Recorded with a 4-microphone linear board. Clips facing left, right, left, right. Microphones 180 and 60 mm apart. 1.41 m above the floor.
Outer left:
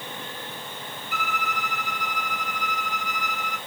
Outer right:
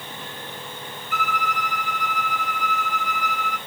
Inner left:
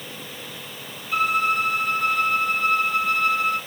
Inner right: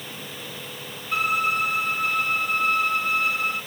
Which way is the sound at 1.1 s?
55° right (ahead or behind).